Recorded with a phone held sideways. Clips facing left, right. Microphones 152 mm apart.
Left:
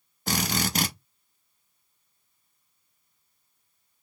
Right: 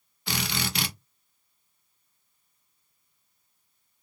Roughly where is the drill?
Left.